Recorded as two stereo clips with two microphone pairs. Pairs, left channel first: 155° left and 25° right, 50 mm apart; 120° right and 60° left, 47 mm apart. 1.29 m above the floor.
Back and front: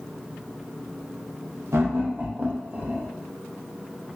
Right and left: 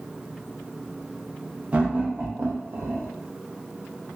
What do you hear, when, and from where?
1.7 s laughter: straight ahead, 0.8 m; by 3.1 s 35° left, 1.2 m